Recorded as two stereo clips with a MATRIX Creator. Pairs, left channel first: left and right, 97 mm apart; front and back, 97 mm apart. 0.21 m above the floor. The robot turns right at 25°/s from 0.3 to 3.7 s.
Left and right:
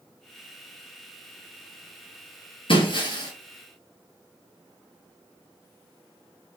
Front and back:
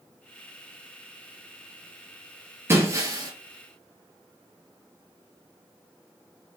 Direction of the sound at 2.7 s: 115° left.